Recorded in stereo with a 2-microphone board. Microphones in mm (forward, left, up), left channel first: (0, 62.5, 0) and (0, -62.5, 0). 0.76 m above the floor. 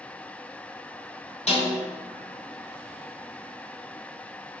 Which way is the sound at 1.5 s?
65° left (ahead or behind).